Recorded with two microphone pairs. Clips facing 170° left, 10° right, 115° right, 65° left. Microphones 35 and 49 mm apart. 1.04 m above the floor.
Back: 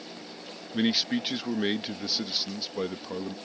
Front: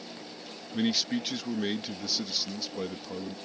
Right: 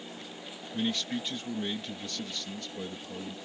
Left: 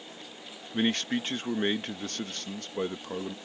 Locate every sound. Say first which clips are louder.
0.7 s a man speaking: back 2 dB, left 4 dB; 100° left